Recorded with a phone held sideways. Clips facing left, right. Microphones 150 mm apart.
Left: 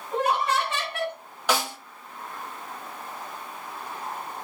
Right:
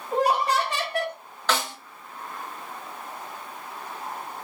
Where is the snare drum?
10° left (ahead or behind), 0.6 m.